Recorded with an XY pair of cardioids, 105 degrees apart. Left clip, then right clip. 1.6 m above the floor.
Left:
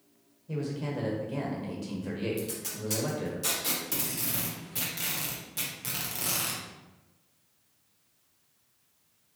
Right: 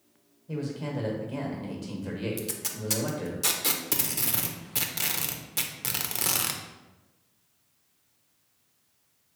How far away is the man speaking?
About 1.2 m.